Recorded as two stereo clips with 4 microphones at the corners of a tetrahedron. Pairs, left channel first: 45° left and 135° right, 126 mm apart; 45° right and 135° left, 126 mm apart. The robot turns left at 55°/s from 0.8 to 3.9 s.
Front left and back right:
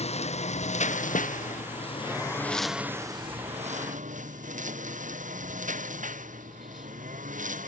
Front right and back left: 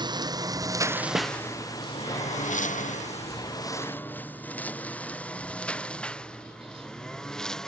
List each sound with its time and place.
0.0 s a lawn mower: 80° left; by 7.7 s 130° right
1.1 s a snare drum: 65° left; by 1.3 s 60° left